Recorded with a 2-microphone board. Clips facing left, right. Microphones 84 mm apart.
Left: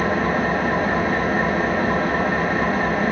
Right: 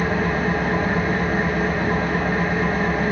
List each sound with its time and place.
0.0 s an engine running: 55° left (ahead or behind), 2.5 m